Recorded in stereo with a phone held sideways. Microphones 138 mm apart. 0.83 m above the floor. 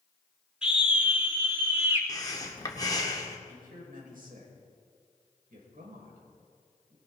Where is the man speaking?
75° right (ahead or behind), 4.5 m.